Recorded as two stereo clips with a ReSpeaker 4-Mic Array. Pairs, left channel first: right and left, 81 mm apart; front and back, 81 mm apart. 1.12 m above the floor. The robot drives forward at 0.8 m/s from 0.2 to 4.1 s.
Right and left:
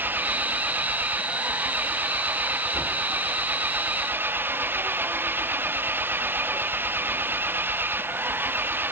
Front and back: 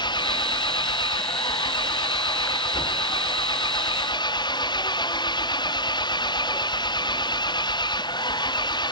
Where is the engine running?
25° left.